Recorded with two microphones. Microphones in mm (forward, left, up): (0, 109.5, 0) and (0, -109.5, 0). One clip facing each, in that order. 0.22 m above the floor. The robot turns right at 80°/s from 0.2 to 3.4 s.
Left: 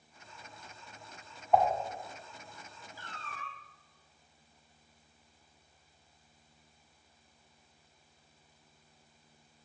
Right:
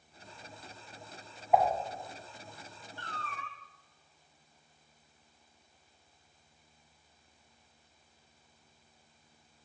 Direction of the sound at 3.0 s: 5° left.